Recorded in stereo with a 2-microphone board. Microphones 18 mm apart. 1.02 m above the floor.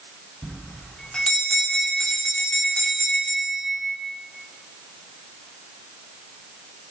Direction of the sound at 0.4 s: 65° left (ahead or behind).